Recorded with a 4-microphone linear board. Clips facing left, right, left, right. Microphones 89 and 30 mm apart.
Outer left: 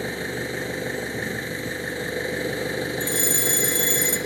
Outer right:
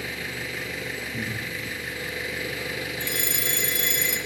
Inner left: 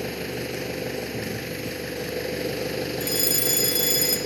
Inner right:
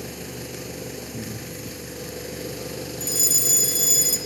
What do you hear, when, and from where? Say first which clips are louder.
0.0 s an engine running: outer left 5 dB, inner left 5 dB; 30° left (ahead or behind), 0.9 m
1.1 s breathing: outer left 3 dB, inner left 4 dB; 5° left (ahead or behind), 7 m
3.0 s a fire alarm: outer left 5 dB, inner right 3 dB; 30° left (ahead or behind), 2.5 m